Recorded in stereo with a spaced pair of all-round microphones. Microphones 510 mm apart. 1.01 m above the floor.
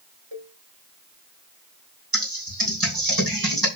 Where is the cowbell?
55° right (ahead or behind), 4 m.